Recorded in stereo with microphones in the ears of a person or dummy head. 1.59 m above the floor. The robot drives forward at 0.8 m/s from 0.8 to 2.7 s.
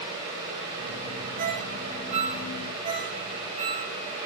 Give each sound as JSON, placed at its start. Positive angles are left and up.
{"t": 1.4, "sound": "a ringtone", "side_deg": -50, "distance_m": 2.0}